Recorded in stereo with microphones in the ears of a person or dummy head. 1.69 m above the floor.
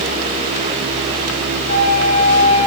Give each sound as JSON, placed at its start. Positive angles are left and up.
{"t": 1.7, "sound": "a flute", "side_deg": 35, "distance_m": 4.5}